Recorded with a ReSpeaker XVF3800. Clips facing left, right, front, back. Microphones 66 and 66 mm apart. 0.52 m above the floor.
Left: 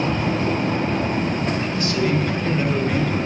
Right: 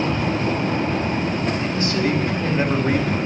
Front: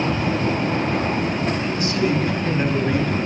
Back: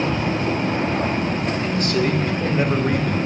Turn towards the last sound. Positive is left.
turn(degrees=-145)